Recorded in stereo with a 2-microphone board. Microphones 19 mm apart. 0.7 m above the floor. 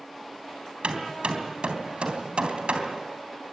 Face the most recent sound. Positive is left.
turn(degrees=-70)  # may be behind; listen again after turning